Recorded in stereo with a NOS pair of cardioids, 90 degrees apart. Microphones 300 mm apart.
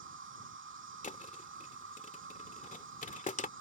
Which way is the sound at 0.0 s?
40° right.